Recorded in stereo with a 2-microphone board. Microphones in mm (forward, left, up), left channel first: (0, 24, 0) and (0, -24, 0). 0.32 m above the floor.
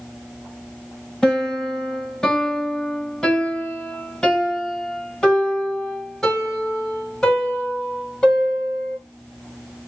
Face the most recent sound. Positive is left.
turn(degrees=15)  # may be behind; listen again after turning